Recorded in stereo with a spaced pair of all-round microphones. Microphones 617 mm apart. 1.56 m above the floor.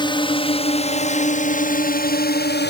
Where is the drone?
10° left (ahead or behind); by 2.7 s 15° left (ahead or behind).